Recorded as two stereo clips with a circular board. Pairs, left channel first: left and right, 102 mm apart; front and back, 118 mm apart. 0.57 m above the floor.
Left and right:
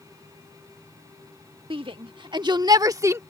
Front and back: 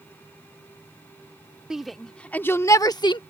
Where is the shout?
95° right; by 3.2 s 30° right.